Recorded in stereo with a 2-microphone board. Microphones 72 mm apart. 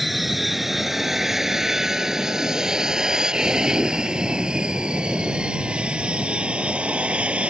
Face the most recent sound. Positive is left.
turn(degrees=-15)  # may be behind; listen again after turning